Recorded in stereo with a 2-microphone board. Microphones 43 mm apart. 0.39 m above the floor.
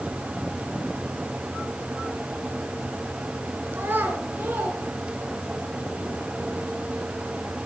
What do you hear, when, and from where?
3.7 s a child speaking: 55° right (ahead or behind), 3 m; by 5.5 s 45° right (ahead or behind), 4 m